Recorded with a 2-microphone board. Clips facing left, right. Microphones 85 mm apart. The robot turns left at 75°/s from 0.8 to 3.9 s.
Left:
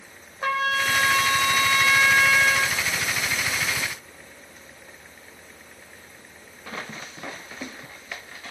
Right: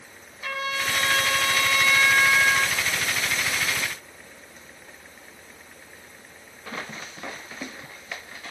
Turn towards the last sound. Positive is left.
turn(degrees=-130)